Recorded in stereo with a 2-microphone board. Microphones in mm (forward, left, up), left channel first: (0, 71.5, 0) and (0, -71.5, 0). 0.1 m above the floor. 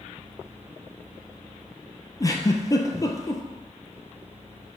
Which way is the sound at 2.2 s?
25° left (ahead or behind).